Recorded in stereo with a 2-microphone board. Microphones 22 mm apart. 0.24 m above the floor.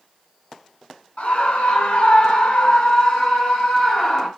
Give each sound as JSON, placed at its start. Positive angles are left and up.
{"t": 1.2, "sound": "a scream", "side_deg": 60, "distance_m": 1.8}